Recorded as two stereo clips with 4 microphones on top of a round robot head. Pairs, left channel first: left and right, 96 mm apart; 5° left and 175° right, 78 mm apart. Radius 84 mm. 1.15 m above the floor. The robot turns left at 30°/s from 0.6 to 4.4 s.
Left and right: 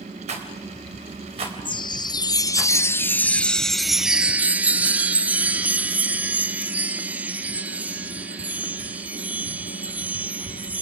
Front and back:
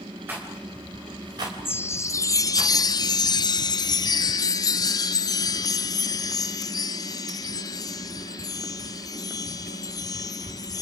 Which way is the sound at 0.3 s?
100° right.